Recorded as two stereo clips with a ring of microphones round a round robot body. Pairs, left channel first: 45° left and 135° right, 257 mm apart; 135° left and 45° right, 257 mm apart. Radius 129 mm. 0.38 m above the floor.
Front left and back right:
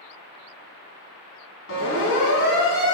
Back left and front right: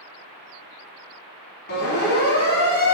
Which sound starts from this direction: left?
A siren, at 1.7 s.